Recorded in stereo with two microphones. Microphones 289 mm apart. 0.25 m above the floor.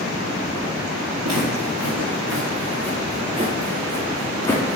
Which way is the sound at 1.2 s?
65° right (ahead or behind).